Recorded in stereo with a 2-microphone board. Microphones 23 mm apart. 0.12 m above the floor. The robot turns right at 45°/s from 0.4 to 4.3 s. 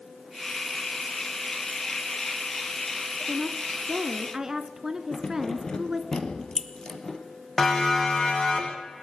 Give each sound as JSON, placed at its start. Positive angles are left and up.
{"t": 3.3, "sound": "a woman speaking", "side_deg": -10, "distance_m": 1.2}
{"t": 5.1, "sound": "keys jangling", "side_deg": 25, "distance_m": 2.5}
{"t": 7.6, "sound": "a siren", "side_deg": 25, "distance_m": 6.0}